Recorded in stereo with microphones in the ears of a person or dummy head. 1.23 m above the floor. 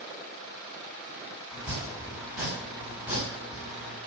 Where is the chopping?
10° right (ahead or behind), 3.5 m.